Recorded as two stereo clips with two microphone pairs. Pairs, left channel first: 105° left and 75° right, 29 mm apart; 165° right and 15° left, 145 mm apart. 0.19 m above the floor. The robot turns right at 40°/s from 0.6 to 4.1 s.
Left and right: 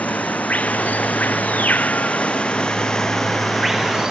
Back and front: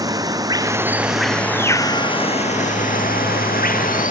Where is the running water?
80° left; by 4.1 s 140° right.